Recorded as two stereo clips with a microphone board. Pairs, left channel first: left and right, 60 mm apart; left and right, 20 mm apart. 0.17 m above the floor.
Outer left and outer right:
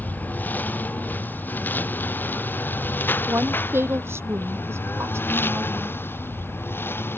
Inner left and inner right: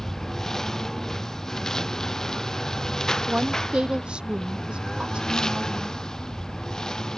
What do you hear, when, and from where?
0.0 s a lawn mower: 25° left (ahead or behind); by 7.2 s 35° left (ahead or behind)
3.3 s a woman speaking: 40° right (ahead or behind)